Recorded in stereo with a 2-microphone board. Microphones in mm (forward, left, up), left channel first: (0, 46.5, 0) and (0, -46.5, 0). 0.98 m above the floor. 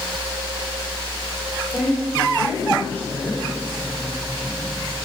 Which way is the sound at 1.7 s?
20° left (ahead or behind).